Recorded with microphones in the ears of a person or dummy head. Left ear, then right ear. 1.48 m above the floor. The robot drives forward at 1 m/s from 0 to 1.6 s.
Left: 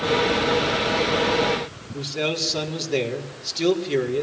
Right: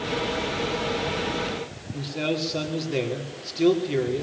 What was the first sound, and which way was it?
A man speaking, 15° left (ahead or behind).